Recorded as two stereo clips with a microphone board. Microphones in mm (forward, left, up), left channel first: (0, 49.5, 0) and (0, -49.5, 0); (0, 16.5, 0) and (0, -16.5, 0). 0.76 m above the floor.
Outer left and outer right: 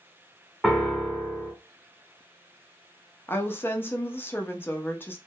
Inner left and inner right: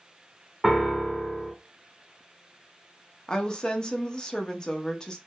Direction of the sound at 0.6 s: 5° left (ahead or behind).